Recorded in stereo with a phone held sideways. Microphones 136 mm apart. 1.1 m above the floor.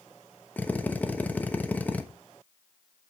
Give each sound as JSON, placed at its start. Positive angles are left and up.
{"t": 0.6, "sound": "a drill", "side_deg": 10, "distance_m": 1.0}